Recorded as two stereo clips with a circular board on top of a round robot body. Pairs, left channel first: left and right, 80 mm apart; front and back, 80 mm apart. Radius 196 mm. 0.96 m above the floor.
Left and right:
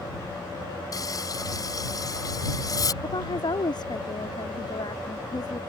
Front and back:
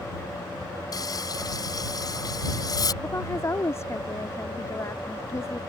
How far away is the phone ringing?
I don't hear a phone ringing.